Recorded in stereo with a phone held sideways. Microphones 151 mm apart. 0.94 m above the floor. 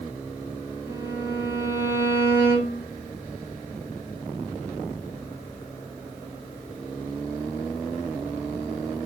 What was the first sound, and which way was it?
A violin, 15° right (ahead or behind).